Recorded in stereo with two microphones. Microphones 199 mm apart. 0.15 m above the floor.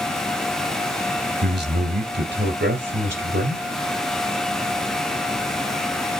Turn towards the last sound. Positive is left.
turn(degrees=-65)  # may be behind; listen again after turning